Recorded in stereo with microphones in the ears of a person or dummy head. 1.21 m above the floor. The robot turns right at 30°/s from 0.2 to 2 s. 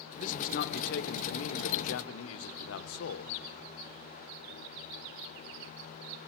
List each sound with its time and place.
0.2 s a man speaking: 45° left, 1.1 m; by 3.4 s 100° left, 1.1 m